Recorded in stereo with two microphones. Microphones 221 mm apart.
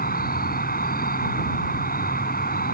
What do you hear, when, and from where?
0.0 s an insect: 40° left (ahead or behind)